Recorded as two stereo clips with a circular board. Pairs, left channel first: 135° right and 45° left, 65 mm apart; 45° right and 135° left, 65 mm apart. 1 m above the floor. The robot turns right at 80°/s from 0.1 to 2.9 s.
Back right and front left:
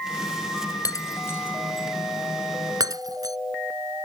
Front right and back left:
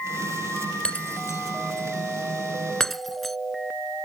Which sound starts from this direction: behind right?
Breaking glass, at 0.8 s.